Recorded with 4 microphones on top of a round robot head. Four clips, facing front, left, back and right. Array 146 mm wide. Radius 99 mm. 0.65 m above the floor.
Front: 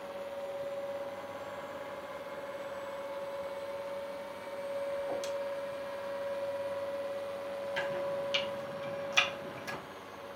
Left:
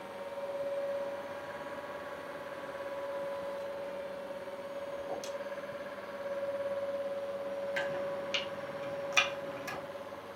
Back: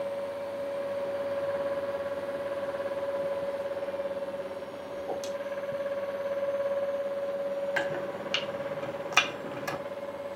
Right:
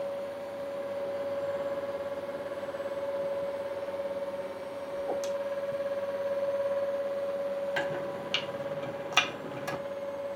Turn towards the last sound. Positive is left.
turn(degrees=-140)